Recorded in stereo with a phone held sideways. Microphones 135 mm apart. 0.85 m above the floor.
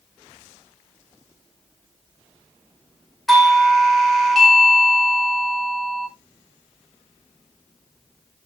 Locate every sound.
3.3 s a doorbell: centre (ahead or behind), 2 m